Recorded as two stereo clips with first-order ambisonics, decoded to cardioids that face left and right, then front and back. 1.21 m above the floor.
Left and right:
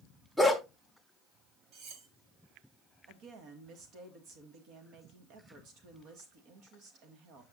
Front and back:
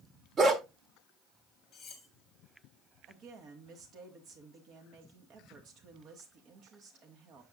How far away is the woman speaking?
About 1.5 m.